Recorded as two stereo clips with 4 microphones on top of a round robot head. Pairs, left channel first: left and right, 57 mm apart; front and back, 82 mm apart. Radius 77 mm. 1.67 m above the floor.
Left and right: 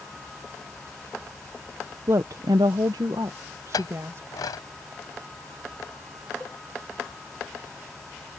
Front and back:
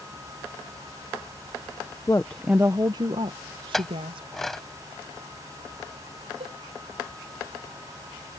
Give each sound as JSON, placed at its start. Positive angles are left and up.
{"t": 2.1, "sound": "a woman speaking", "azimuth_deg": -55}
{"t": 3.7, "sound": "a clink", "azimuth_deg": 85}
{"t": 6.4, "sound": "a cowbell", "azimuth_deg": 170}